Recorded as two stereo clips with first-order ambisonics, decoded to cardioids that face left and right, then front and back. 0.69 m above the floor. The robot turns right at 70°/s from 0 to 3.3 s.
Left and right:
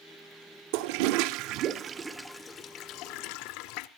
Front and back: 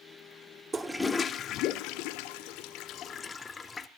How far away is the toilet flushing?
About 0.8 m.